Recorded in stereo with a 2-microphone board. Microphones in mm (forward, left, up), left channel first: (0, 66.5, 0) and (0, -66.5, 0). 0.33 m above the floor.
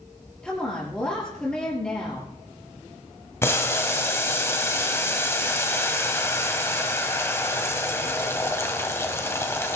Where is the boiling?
20° left (ahead or behind), 1.5 m.